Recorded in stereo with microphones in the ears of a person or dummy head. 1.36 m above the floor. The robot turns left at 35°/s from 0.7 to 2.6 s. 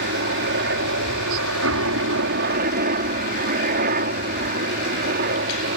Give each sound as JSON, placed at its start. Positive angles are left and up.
{"t": 0.0, "sound": "a helicopter", "azimuth_deg": -65}